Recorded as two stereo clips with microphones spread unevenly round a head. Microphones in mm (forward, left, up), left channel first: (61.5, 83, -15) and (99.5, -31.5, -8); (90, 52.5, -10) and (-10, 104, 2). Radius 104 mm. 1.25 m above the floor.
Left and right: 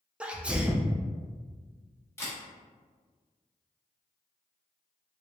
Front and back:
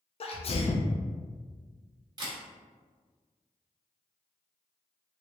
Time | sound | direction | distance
0.2 | a sneeze | 10° left | 0.5 m
2.2 | a camera shutter | 170° left | 1.0 m